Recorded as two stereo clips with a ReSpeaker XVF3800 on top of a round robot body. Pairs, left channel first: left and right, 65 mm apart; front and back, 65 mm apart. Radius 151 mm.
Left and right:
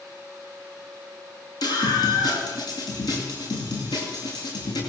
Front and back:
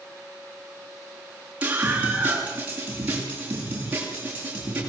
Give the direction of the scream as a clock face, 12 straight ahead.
8 o'clock.